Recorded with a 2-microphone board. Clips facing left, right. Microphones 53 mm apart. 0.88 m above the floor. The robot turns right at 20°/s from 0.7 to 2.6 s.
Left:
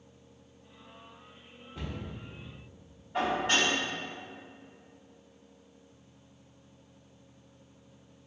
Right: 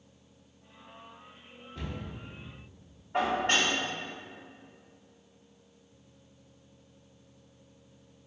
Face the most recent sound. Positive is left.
turn(degrees=-55)  # may be behind; listen again after turning